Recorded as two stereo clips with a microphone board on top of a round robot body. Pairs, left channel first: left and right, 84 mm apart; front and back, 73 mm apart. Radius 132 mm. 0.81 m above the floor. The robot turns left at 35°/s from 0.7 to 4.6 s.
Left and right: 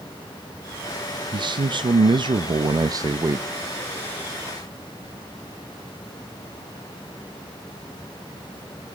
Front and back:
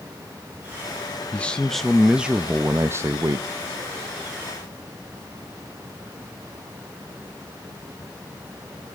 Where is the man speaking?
70° right, 0.8 m; by 3.5 s 145° right, 0.8 m.